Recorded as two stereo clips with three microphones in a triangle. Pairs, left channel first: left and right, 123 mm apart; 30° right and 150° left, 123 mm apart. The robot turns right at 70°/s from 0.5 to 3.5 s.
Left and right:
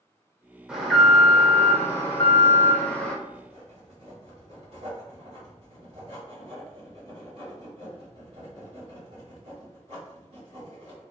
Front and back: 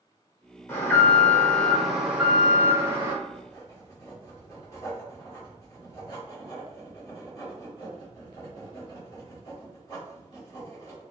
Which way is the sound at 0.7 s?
20° right.